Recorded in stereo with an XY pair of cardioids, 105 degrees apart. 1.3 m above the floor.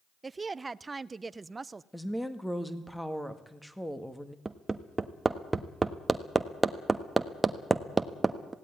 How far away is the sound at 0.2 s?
About 0.6 m.